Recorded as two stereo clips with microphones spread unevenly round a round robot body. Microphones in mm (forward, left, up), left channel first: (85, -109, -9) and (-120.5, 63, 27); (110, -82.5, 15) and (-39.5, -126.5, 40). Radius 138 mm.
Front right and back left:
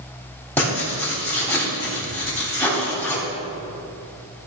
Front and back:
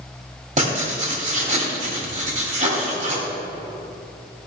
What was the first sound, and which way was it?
Writing, 120° right.